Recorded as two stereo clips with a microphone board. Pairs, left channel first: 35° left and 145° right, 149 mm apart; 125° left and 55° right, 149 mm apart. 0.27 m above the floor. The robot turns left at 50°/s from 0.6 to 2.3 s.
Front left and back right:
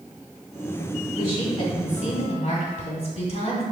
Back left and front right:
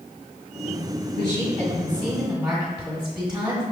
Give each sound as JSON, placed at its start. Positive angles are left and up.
{"t": 1.2, "sound": "a woman speaking", "azimuth_deg": 85, "distance_m": 1.7}